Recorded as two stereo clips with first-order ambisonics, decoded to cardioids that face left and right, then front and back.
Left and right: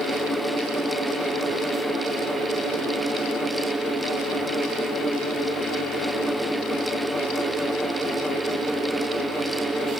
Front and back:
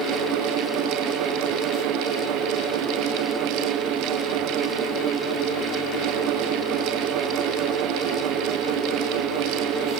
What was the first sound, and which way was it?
Only background noise.